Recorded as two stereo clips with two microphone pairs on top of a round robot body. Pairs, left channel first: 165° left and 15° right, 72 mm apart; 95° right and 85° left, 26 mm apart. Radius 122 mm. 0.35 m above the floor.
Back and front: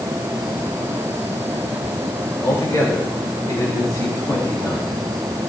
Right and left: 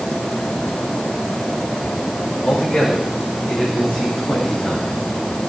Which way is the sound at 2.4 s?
150° right.